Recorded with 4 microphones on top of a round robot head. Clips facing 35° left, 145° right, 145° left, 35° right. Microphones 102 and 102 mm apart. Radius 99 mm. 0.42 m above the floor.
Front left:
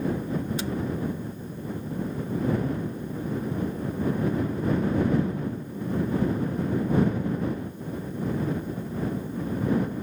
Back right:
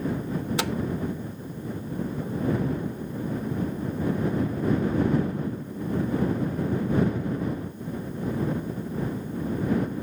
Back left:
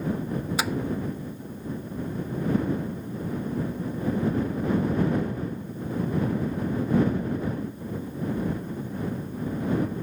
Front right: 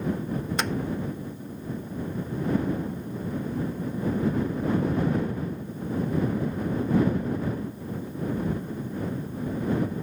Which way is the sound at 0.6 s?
130° right.